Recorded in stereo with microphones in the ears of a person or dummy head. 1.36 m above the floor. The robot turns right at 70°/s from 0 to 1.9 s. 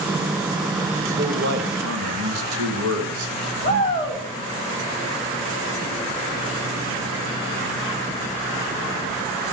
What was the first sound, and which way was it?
A man speaking, 150° right.